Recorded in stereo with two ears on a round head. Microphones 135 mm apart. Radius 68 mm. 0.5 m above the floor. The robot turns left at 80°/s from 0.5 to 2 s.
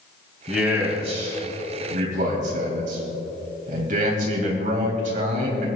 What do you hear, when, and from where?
0.5 s a man speaking: 5° left, 3 m; by 5.7 s 115° right, 3 m